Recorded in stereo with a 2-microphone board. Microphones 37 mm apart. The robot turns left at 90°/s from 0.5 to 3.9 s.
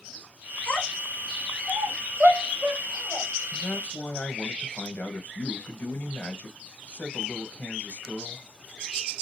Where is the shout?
40° right (ahead or behind), 1.6 m; by 3.3 s 5° left (ahead or behind), 1.6 m.